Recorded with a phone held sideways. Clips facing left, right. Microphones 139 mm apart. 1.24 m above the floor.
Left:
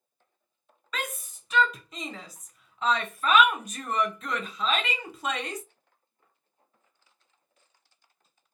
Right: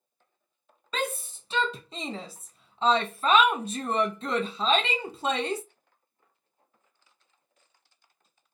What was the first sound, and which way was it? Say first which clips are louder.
A shout: right 5 dB; 30° right (ahead or behind).